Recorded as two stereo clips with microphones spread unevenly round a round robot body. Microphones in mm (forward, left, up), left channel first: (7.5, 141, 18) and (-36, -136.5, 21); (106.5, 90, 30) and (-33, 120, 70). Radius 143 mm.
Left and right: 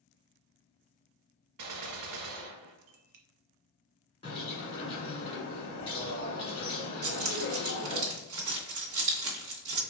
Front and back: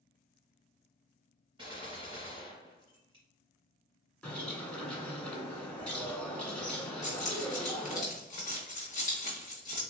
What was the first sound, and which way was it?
A gunshot, 120° right.